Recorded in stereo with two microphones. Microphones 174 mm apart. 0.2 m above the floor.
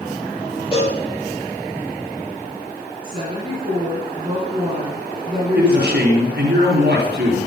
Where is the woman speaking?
30° right (ahead or behind), 2.5 m.